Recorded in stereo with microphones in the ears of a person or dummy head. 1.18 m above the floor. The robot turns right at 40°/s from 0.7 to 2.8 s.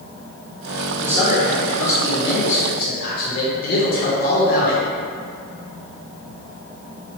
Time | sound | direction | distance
1.0 | a man speaking | 15° right | 1.3 m